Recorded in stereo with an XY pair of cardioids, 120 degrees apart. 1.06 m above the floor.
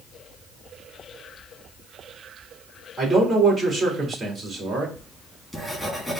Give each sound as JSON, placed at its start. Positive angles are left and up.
{"t": 3.0, "sound": "a man speaking", "azimuth_deg": -30, "distance_m": 2.5}
{"t": 5.0, "sound": "writing", "azimuth_deg": 0, "distance_m": 1.9}